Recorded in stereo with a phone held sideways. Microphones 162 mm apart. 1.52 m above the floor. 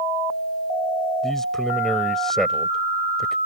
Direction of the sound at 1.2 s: 5° left (ahead or behind).